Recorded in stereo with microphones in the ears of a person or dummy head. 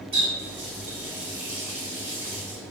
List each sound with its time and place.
0.1 s a running tap: 30° right (ahead or behind), 1.6 m